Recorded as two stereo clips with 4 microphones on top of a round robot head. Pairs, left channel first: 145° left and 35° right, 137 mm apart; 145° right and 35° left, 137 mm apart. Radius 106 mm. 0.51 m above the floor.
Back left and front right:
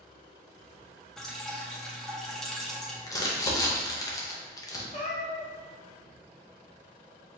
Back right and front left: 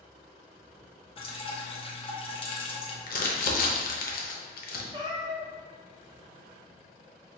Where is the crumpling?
150° right, 0.8 m.